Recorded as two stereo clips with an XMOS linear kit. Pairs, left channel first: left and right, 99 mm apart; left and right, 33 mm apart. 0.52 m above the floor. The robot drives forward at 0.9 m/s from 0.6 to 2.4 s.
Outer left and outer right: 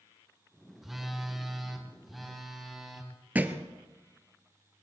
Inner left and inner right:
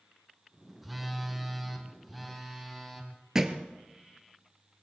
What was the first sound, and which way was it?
A phone buzzing, centre (ahead or behind).